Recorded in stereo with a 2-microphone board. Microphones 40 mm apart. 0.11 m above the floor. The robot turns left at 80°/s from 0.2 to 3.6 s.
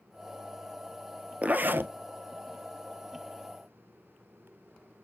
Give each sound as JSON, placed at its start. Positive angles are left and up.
{"t": 1.4, "sound": "a zipper", "azimuth_deg": -40, "distance_m": 0.6}